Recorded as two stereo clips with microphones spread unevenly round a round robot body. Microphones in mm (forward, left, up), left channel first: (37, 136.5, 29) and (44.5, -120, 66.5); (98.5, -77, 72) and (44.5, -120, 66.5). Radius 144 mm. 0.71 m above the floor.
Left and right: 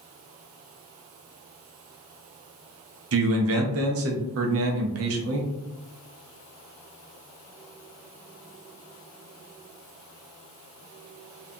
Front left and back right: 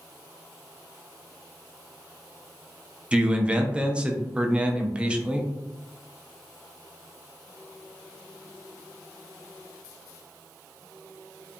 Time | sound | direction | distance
3.1 | a man speaking | 75° right | 0.7 m